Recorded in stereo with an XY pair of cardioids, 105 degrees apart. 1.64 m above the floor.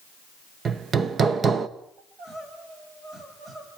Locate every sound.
0.7 s hammering: 45° right, 1.2 m
2.0 s crying: 50° right, 7.5 m